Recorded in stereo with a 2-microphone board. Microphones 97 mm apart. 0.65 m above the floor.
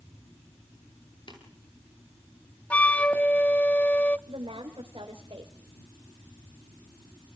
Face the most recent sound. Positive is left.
turn(degrees=-70)  # may be behind; listen again after turning